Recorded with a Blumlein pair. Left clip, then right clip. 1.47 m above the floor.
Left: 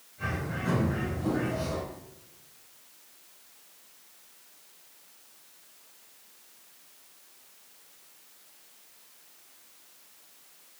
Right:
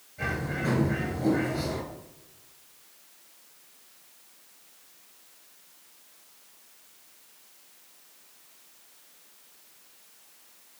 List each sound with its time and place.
0.2 s a bird: 60° right, 5.5 m